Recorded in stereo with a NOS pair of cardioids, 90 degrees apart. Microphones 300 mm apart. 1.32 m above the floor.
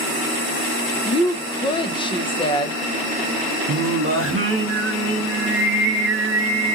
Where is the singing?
45° right, 0.8 m.